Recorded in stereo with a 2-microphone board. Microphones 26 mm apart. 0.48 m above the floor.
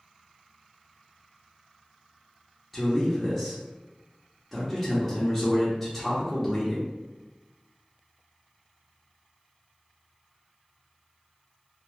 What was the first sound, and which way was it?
A man speaking, 5° left (ahead or behind).